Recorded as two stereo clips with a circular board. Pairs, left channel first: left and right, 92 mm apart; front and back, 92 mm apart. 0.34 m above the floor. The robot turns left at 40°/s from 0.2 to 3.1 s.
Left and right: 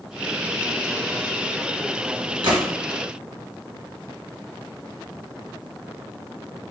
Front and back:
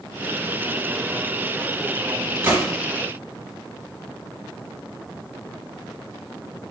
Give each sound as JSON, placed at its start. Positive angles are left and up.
{"t": 2.4, "sound": "a gunshot", "azimuth_deg": -115, "distance_m": 1.2}